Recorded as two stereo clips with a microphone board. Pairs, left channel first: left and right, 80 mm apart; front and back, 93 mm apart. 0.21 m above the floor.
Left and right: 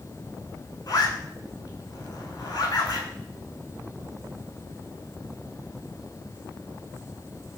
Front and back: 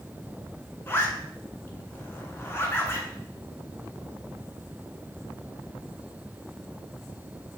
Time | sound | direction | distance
0.9 | a zipper | 60° left | 0.6 m